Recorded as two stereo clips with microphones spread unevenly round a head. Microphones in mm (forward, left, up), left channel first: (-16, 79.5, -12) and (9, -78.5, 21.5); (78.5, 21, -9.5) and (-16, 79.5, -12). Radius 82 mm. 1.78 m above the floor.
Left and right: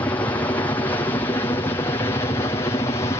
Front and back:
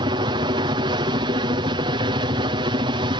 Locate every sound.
0.0 s a helicopter: 160° left; by 3.2 s 150° left